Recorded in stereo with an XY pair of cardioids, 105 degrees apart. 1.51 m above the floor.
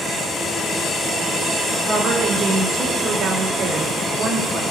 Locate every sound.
1.9 s a woman speaking: 60° right, 3 m